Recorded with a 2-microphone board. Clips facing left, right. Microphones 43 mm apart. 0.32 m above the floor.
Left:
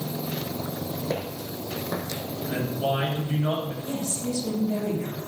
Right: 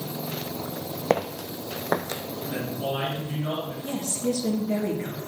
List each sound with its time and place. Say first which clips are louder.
1.1 s footsteps: right 5 dB; 55° right (ahead or behind), 0.9 m; by 2.2 s 30° right (ahead or behind), 1.0 m
2.4 s a woman speaking: left 4 dB; 30° left (ahead or behind), 2 m
3.8 s a woman speaking: right 2 dB; 75° right (ahead or behind), 3.5 m